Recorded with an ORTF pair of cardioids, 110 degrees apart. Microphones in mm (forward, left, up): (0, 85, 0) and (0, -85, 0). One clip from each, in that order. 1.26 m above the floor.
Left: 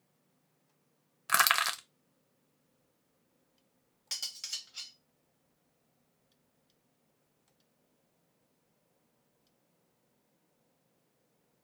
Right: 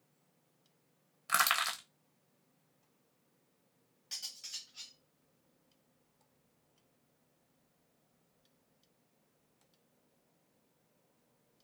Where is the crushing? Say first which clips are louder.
Left 4 dB; 30° left, 0.8 m.